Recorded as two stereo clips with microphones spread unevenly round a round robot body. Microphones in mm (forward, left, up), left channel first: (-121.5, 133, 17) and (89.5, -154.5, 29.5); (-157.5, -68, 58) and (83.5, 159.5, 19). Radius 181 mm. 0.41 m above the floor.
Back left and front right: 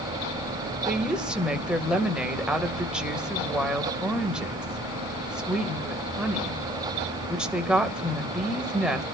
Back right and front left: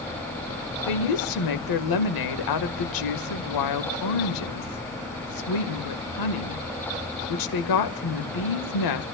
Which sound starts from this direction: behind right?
A woman speaking, at 0.8 s.